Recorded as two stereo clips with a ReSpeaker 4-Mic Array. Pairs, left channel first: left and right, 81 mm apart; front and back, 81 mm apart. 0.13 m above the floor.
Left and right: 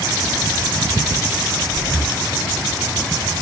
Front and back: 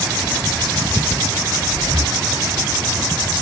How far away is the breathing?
About 4.5 m.